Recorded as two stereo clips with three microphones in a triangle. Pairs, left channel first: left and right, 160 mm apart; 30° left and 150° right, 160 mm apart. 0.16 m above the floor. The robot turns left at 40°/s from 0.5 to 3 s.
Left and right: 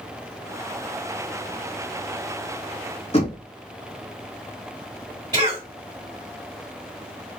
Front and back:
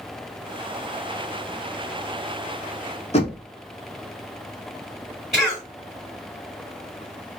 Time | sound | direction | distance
3.1 | knocking | 55° left | 1.1 m
5.3 | a cough | 55° right | 2 m